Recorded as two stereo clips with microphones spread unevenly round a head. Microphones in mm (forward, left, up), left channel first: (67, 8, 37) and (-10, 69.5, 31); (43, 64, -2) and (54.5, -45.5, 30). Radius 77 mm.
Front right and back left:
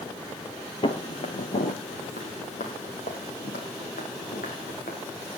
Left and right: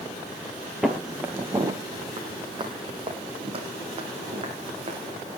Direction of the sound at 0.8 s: 10° right.